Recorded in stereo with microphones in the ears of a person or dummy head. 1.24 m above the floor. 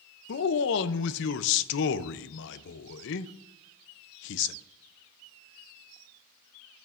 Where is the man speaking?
65° left (ahead or behind), 0.5 m.